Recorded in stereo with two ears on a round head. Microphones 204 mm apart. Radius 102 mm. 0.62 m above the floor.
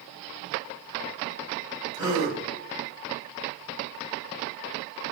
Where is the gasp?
20° right (ahead or behind), 3.5 m.